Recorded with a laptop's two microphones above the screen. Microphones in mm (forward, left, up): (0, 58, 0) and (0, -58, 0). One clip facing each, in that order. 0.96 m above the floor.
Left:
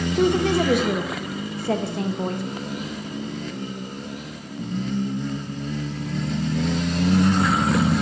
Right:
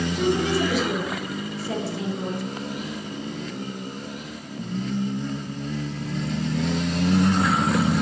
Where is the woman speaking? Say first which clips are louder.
Left 4 dB; 55° left (ahead or behind), 1.0 m.